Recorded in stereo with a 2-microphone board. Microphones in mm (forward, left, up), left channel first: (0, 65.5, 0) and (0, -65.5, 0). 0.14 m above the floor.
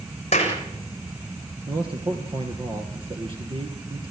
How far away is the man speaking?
About 2.5 m.